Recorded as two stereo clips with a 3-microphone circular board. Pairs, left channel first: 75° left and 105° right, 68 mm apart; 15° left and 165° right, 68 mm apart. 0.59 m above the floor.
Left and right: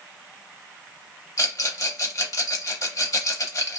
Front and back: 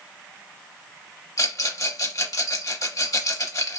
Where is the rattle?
45° left, 0.7 m.